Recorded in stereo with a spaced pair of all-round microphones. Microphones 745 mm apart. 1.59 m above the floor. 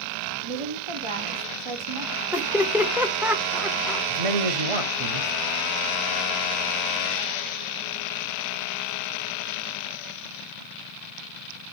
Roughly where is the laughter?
Centre.